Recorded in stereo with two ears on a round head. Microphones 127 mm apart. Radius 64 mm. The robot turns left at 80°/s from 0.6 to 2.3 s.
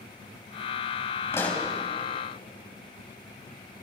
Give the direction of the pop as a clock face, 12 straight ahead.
11 o'clock.